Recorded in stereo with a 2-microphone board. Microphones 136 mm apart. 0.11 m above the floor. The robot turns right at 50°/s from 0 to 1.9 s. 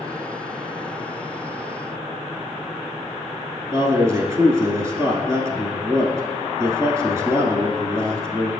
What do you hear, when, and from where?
3.7 s a man speaking: 25° right (ahead or behind), 1.2 m